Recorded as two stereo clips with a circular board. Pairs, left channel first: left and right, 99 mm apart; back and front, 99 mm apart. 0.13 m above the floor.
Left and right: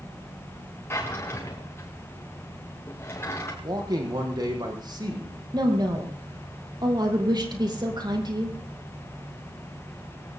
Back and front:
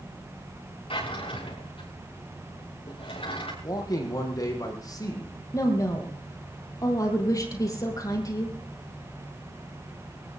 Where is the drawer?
155° left, 5.5 m.